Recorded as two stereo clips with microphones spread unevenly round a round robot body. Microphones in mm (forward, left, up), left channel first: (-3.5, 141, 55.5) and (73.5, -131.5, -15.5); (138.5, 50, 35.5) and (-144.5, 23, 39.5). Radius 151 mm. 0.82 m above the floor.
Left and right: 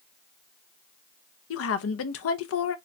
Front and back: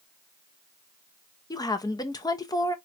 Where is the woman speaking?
75° left, 0.8 m.